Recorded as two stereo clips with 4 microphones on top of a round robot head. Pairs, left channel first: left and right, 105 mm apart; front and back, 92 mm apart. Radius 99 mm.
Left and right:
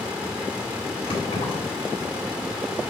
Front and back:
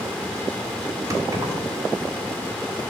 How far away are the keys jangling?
About 2.5 m.